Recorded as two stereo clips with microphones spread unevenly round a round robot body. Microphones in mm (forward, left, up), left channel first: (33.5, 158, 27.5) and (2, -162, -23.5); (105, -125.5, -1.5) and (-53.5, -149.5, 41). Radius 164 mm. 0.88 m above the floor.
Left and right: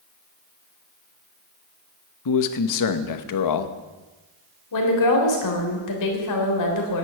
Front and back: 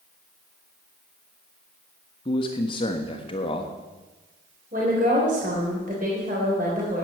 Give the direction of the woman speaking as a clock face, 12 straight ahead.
8 o'clock.